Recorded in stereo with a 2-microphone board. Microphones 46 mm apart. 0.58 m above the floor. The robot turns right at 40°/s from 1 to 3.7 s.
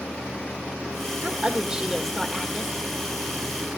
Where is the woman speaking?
50° right, 1.6 m; by 2.7 s 10° left, 1.6 m.